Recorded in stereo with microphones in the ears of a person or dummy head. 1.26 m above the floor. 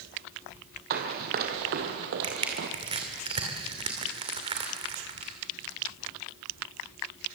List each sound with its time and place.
0.9 s running footsteps: 50° right (ahead or behind), 2 m
2.2 s crushing: 25° right (ahead or behind), 2.5 m